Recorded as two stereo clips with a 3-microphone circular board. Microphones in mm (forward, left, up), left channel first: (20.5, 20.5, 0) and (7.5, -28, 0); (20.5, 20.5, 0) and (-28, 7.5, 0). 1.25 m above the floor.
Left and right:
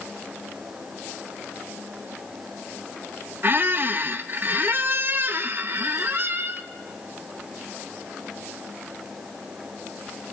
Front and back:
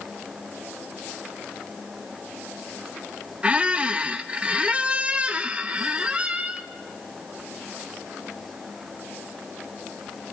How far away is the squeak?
About 0.6 m.